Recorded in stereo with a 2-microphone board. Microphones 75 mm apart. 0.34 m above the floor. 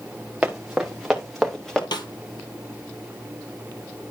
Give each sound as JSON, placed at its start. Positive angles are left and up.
{"t": 0.4, "sound": "running footsteps", "side_deg": -15, "distance_m": 2.5}
{"t": 1.9, "sound": "a snare drum", "side_deg": 75, "distance_m": 1.3}